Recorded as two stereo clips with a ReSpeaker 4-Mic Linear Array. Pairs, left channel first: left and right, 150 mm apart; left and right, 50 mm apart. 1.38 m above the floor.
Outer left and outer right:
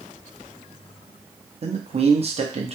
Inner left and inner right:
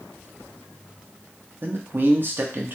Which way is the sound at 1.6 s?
45° right (ahead or behind).